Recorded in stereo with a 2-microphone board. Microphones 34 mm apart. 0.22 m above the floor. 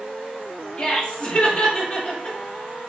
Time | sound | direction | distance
0.8 | laughter | 25° left (ahead or behind) | 1.6 m